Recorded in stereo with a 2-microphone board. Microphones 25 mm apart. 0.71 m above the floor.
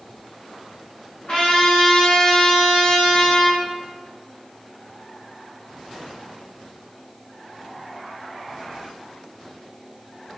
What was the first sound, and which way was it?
A trumpet, 65° left (ahead or behind).